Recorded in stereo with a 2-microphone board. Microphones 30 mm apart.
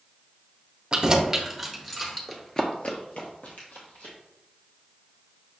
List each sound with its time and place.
0.9 s keys jangling: 35° right (ahead or behind), 0.5 m; by 2.2 s 5° left (ahead or behind), 1.1 m
2.3 s running footsteps: centre (ahead or behind), 0.7 m; by 4.1 s 70° left (ahead or behind), 1.7 m